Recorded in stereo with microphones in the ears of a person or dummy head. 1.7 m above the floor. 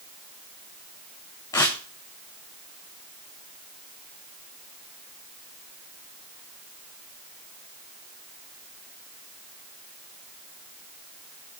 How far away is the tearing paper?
About 0.7 m.